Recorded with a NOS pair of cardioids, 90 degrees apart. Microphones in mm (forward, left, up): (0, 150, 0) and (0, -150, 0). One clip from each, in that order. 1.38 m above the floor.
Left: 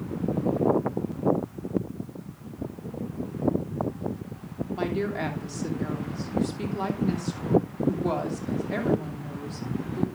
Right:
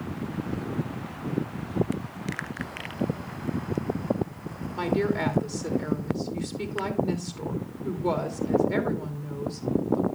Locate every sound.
4.8 s a woman speaking: 5° right, 2.5 m